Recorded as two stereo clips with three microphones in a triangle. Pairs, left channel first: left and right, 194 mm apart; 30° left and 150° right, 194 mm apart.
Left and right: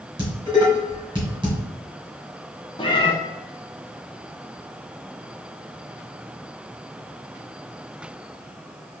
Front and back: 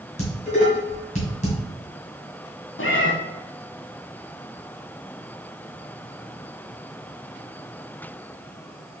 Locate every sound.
0.2 s dishes clattering: 25° right, 1.8 m
2.8 s a cat meowing: 25° left, 0.7 m